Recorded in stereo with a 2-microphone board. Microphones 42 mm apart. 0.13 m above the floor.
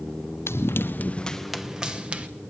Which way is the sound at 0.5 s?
80° left.